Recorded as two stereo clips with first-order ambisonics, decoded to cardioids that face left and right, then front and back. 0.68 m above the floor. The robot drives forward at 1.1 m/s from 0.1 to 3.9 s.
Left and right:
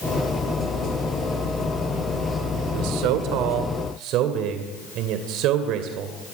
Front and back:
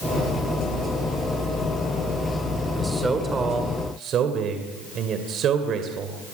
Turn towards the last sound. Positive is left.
turn(degrees=-125)